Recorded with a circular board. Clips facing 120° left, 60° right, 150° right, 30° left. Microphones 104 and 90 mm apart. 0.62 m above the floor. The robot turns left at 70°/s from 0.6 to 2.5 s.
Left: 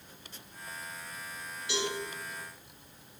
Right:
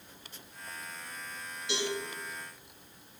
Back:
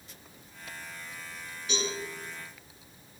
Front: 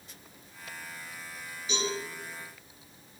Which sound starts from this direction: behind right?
A cowbell, at 1.7 s.